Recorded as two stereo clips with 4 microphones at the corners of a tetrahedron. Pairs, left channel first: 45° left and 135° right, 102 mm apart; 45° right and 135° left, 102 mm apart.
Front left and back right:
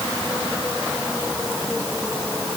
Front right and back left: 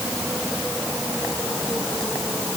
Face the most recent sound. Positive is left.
No sound to turn to.